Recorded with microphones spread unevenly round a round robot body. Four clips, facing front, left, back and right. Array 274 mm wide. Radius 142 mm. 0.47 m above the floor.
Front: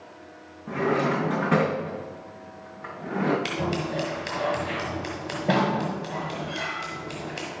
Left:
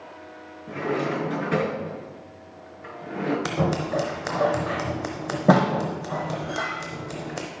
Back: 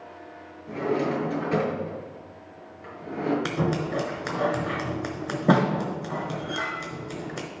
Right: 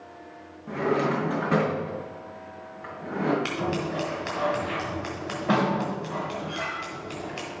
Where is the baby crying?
No baby crying in this recording.